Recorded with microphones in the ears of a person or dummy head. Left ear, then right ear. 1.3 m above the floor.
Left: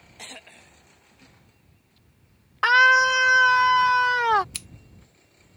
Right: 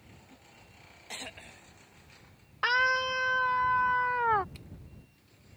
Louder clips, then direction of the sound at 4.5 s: Left 15 dB; 55° left (ahead or behind).